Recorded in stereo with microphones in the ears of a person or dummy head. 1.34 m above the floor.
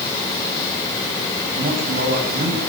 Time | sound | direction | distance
1.6 | a man speaking | 55° right (ahead or behind) | 9 m